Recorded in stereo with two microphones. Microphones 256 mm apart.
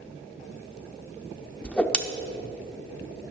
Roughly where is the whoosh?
Centre.